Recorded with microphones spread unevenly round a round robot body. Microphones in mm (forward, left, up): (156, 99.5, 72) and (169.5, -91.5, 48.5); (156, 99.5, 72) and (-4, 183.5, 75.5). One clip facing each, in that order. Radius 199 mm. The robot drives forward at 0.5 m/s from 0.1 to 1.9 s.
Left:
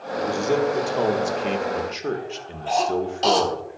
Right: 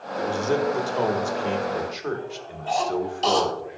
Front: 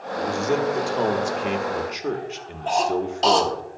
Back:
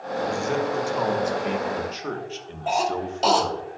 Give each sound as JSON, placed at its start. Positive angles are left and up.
{"t": 0.2, "sound": "a man speaking", "azimuth_deg": 15, "distance_m": 1.7}
{"t": 2.7, "sound": "a cough", "azimuth_deg": 70, "distance_m": 2.5}